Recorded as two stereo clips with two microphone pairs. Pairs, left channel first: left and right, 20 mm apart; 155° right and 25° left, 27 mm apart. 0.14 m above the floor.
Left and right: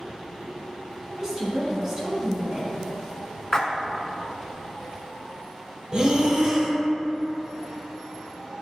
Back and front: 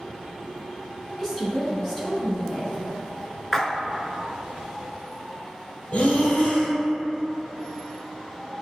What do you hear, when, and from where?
1.2 s a woman speaking: 85° right, 1.3 m
3.5 s a splash: 130° left, 0.5 m
5.9 s breathing: 140° right, 0.9 m